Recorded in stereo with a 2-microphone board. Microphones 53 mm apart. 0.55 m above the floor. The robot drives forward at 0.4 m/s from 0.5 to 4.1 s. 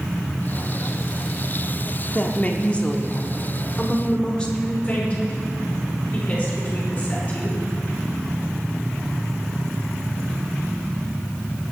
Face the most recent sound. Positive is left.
turn(degrees=30)  # may be behind; listen again after turning